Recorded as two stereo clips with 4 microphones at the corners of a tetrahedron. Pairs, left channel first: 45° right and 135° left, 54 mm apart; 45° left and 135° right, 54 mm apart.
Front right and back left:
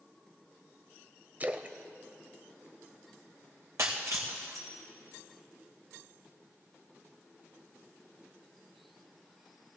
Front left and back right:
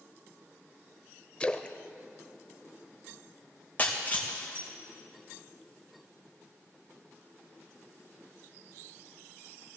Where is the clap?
I don't hear a clap.